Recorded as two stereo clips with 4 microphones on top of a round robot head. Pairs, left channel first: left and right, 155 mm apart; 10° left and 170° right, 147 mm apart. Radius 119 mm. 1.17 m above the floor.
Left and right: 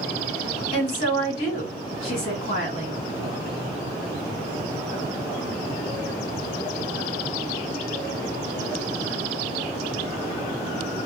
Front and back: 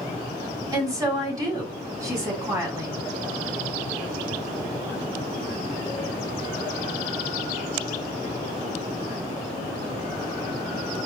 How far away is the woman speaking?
About 2.5 m.